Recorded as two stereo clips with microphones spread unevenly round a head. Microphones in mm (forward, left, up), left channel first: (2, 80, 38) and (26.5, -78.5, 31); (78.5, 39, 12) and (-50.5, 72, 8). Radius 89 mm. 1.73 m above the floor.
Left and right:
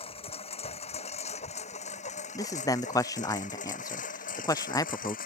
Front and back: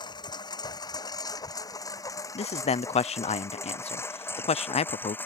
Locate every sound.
0.0 s a lawn mower: 45° left; by 5.3 s 60° left
2.4 s a man speaking: 30° left